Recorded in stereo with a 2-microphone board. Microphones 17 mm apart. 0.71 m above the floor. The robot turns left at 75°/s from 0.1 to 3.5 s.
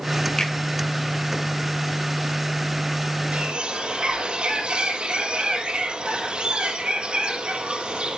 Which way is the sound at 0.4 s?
40° left (ahead or behind).